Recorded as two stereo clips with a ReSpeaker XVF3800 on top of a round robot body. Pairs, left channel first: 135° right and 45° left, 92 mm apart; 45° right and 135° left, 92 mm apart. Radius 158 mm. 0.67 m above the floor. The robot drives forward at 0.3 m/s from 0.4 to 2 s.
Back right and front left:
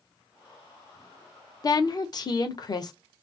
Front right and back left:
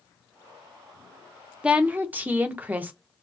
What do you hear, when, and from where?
1.6 s a woman speaking: 150° right, 0.6 m; by 2.9 s 160° right, 0.6 m